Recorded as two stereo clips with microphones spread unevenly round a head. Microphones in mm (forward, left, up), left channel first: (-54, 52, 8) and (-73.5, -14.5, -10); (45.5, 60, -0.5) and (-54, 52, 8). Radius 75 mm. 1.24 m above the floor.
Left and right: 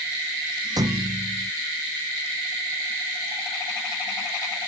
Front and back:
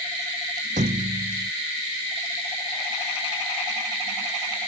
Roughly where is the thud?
Behind right.